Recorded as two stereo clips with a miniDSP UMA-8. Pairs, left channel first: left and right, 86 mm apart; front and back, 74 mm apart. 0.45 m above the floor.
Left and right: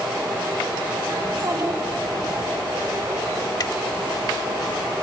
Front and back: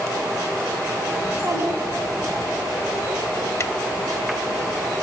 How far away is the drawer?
About 0.8 m.